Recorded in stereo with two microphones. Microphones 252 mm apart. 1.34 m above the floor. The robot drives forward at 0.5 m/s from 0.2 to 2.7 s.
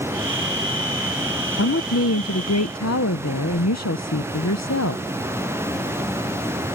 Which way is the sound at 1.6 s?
55° left (ahead or behind).